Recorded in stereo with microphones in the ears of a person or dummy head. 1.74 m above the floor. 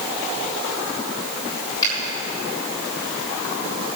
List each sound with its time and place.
1.8 s a finger snap: 25° left (ahead or behind), 7.5 m